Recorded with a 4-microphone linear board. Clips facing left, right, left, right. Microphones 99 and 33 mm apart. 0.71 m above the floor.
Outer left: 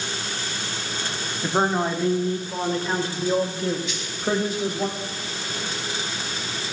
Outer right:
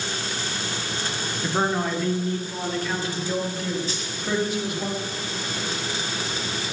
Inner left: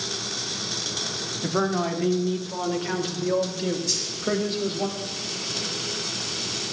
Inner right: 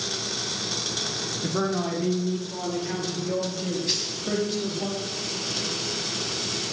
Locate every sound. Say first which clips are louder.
1.4 s a man speaking: outer left 2 dB, inner left 2 dB; 15° left (ahead or behind), 2 m; by 4.9 s 40° left (ahead or behind), 5 m
3.9 s a dropped coin: outer right 1 dB, inner right 1 dB; 35° right (ahead or behind), 2.5 m